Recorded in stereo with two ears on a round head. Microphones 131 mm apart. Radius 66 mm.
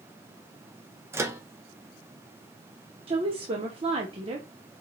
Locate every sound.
1.1 s a microwave: 15° right (ahead or behind), 0.5 m
3.1 s a woman speaking: 40° right (ahead or behind), 0.8 m